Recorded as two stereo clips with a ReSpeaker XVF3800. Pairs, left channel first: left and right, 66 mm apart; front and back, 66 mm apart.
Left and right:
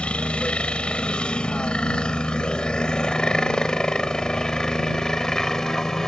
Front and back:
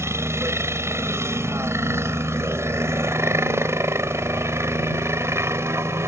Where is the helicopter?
155° left; by 6.1 s 170° left.